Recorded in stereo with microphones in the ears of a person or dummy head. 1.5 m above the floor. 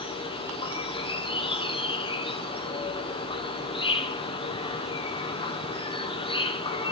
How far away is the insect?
About 1.1 m.